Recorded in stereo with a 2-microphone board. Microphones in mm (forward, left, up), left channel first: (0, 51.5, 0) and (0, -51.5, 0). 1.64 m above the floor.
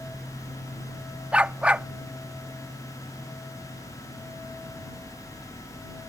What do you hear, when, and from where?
1.3 s a dog barking: 10° right (ahead or behind)